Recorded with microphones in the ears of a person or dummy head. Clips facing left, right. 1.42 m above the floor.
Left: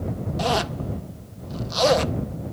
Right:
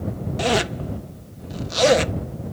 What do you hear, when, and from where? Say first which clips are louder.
0.4 s a zipper: right 3 dB; 25° right (ahead or behind)